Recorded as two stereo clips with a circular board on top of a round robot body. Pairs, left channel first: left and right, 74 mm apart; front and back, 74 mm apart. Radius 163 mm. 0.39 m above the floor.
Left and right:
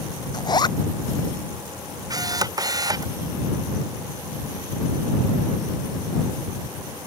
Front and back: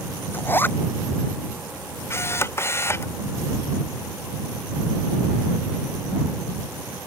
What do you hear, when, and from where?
0.3 s a zipper: 65° left
2.1 s a camera shutter: 55° right